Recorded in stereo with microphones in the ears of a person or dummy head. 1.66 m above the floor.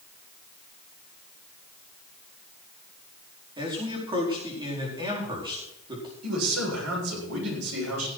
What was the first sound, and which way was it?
A man speaking, 25° right (ahead or behind).